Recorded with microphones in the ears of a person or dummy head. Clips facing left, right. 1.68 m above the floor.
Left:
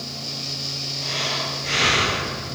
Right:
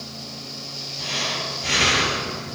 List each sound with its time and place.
1.0 s breathing: 75° right (ahead or behind), 3.5 m